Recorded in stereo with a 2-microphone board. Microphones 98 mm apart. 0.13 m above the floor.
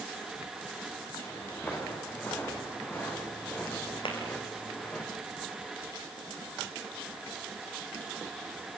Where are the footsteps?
20° left (ahead or behind), 7 m; by 5.0 s 15° left (ahead or behind), 4.5 m.